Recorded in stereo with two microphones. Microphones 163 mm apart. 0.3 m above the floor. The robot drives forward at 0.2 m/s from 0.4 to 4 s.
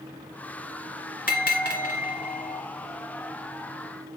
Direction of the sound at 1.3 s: 65° left (ahead or behind).